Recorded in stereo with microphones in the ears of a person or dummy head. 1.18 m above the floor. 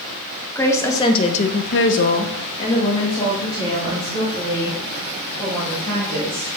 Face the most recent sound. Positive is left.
turn(degrees=15)  # may be behind; listen again after turning